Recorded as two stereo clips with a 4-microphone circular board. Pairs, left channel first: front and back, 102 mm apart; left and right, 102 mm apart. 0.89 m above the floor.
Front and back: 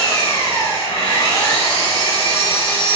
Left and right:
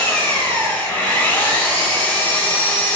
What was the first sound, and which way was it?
An engine running, 20° left.